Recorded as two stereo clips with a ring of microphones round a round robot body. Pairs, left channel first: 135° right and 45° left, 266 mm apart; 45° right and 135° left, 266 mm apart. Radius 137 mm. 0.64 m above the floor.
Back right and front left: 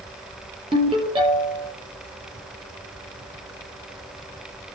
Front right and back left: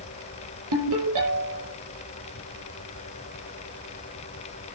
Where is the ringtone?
115° left, 7 m.